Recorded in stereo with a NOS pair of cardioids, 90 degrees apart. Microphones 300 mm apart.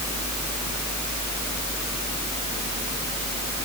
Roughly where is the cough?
No cough in this recording.